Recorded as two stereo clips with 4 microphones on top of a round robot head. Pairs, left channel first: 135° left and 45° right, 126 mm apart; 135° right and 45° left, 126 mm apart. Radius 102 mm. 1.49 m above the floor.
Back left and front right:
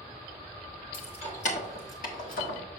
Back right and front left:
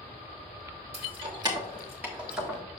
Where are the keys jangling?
85° left, 1.2 m; by 2.6 s 130° left, 1.7 m.